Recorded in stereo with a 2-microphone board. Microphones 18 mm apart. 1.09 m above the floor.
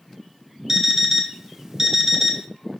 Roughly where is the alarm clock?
Right.